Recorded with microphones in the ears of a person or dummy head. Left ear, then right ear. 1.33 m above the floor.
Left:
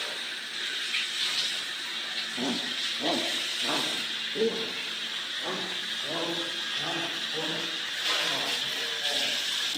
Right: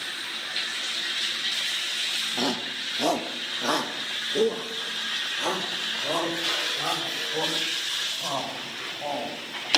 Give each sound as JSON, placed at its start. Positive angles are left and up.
{"t": 2.4, "sound": "a shout", "side_deg": -50, "distance_m": 1.6}